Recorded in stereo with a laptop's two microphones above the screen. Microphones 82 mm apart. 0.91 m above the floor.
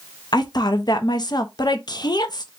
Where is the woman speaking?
55° left (ahead or behind), 0.6 m.